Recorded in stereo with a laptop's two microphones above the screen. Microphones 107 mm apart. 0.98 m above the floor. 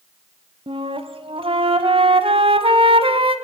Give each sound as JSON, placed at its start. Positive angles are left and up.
{"t": 0.7, "sound": "a flute", "side_deg": -60, "distance_m": 1.4}